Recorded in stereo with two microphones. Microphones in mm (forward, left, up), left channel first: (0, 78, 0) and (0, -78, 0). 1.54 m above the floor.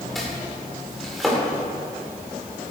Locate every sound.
0.1 s chopping: centre (ahead or behind), 3 m